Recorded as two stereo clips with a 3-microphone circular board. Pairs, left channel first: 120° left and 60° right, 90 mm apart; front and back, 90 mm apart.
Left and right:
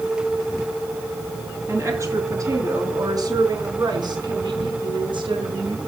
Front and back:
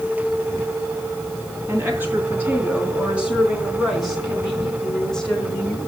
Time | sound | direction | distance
1.7 | a woman speaking | 115° right | 4 m